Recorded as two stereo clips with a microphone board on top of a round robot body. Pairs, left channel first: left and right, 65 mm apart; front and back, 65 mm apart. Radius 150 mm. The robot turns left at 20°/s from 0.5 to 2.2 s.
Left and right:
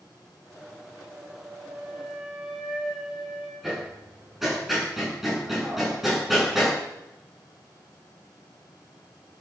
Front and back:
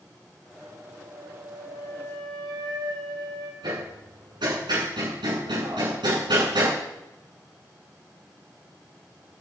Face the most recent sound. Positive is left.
turn(degrees=180)